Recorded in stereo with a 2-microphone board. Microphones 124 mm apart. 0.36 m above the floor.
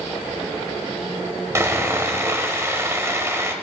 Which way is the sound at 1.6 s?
20° right (ahead or behind).